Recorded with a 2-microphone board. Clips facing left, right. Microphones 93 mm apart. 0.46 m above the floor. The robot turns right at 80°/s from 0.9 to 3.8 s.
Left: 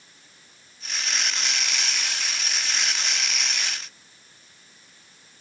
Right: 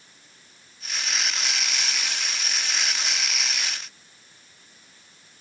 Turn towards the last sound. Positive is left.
No sound to turn to.